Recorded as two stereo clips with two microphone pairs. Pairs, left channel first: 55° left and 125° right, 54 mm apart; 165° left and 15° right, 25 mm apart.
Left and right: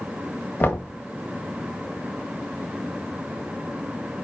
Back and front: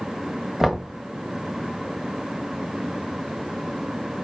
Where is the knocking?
50° left, 1.1 m.